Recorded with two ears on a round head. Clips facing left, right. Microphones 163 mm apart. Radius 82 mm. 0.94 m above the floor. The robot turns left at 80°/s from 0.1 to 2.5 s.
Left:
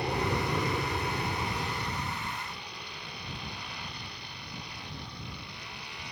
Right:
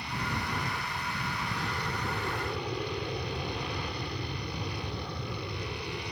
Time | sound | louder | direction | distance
0.0 | an aircraft | left 6 dB | 135° left | ?